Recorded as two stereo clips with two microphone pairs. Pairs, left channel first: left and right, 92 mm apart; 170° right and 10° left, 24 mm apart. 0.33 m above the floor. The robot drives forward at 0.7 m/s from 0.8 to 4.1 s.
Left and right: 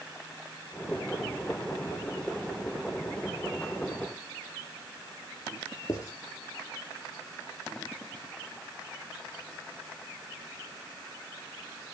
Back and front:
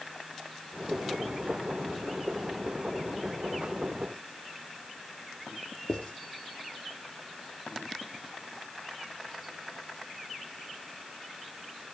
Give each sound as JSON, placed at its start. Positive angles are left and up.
{"t": 5.9, "sound": "writing", "azimuth_deg": 140, "distance_m": 3.5}